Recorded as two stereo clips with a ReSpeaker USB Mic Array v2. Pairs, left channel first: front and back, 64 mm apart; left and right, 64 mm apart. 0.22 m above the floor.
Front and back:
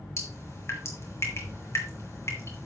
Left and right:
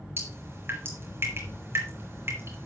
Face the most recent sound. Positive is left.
turn(degrees=-40)